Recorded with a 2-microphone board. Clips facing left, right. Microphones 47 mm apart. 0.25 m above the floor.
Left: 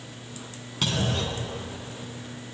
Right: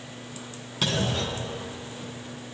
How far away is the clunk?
About 3 m.